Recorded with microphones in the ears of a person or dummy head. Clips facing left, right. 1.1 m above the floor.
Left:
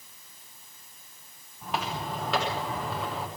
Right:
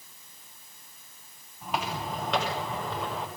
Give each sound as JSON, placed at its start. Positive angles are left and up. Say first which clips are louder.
{"t": 1.6, "sound": "footsteps", "louder": "even", "side_deg": 0, "distance_m": 7.5}